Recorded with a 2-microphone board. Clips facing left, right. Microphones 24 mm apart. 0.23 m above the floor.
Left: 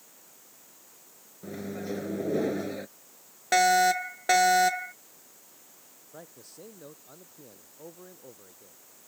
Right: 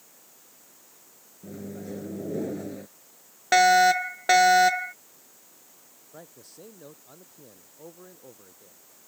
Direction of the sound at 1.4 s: 50° left (ahead or behind).